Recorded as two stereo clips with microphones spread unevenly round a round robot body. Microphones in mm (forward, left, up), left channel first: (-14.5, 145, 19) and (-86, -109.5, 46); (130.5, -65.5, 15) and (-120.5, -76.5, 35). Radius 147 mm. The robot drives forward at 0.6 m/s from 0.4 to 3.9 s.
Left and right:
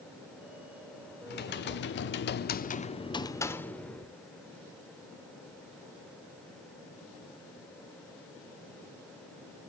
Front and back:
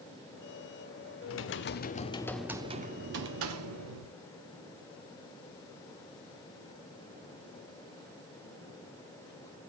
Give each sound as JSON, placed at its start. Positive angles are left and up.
{"t": 1.3, "sound": "typing on a keyboard", "azimuth_deg": 25, "distance_m": 0.9}